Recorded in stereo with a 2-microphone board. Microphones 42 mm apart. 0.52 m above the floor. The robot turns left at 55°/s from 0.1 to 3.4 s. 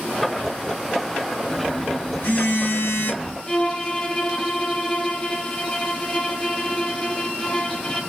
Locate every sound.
1.5 s a phone buzzing: 160° left, 0.6 m; by 3.4 s 55° left, 0.6 m
3.5 s a violin: 20° left (ahead or behind), 0.8 m